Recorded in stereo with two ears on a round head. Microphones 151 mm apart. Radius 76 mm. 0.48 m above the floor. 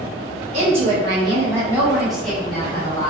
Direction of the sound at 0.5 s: 40° right (ahead or behind).